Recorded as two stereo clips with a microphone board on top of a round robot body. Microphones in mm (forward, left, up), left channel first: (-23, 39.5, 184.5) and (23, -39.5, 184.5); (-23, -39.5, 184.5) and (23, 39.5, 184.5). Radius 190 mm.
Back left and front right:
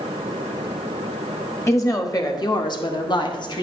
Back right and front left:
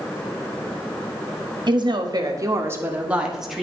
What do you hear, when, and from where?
1.7 s a woman speaking: 70° left, 1.5 m; by 3.6 s 150° left, 1.6 m